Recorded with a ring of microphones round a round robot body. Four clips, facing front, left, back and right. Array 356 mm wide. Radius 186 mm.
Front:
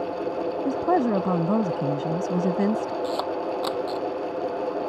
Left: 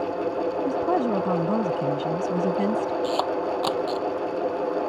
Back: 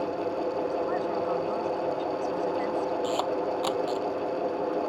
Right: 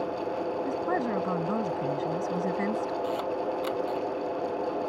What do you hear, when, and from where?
0.7 s a woman speaking: 20° left
3.0 s a camera shutter: 85° left